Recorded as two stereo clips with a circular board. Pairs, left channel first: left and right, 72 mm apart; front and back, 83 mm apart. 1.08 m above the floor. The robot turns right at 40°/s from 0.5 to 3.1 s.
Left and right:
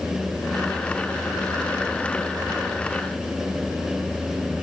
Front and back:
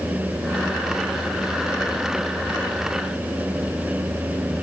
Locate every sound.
Only background noise.